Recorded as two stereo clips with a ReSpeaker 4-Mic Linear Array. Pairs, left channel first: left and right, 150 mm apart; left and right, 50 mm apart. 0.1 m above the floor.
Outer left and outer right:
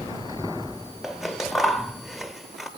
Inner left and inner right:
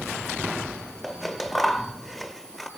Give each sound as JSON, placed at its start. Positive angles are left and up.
{"t": 1.0, "sound": "scissors", "side_deg": 0, "distance_m": 1.0}